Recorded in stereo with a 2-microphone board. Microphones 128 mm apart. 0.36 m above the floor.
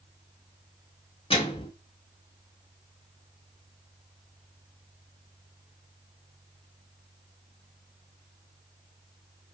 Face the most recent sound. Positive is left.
turn(degrees=45)  # may be behind; listen again after turning